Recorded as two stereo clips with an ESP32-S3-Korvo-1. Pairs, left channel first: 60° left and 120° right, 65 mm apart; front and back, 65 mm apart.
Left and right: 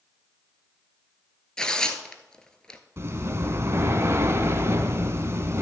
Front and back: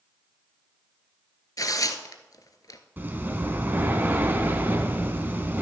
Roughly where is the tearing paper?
Ahead.